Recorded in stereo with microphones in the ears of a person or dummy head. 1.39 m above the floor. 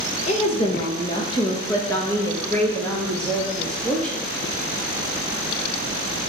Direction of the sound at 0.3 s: 40° left (ahead or behind).